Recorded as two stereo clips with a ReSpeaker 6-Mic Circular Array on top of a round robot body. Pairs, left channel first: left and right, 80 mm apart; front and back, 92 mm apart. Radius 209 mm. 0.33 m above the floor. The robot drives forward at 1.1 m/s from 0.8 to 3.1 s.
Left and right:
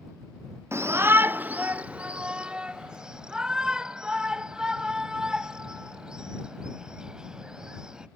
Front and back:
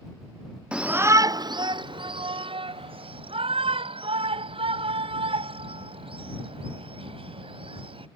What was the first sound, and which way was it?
A shout, 110° right.